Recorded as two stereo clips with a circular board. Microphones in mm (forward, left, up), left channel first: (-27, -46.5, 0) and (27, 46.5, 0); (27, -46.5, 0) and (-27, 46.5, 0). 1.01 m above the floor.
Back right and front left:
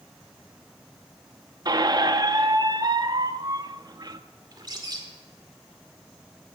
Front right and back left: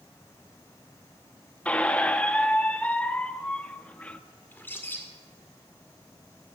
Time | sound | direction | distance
1.6 | a squeak | 15° left | 0.6 m
4.5 | a bird | 10° left | 1.8 m